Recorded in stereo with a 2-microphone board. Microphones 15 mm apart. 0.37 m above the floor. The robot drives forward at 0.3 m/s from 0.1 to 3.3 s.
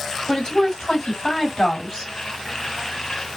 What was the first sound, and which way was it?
A woman speaking, 50° left (ahead or behind).